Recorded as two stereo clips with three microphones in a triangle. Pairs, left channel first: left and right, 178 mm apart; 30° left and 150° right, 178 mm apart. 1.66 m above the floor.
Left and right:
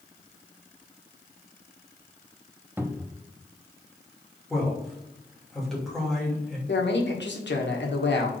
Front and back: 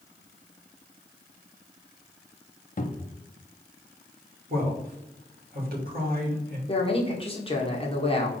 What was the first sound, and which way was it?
A cupboard door, 15° right.